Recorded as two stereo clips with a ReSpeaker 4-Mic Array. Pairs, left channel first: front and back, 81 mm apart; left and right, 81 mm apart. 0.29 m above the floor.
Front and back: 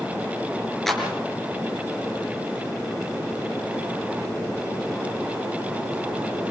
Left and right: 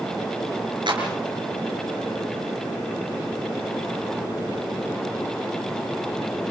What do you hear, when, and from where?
0.9 s a clap: 85° right, 5 m